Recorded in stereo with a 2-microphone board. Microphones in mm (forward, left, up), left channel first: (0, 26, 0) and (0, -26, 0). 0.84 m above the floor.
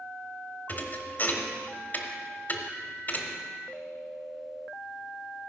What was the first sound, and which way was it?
A thud, 40° left (ahead or behind).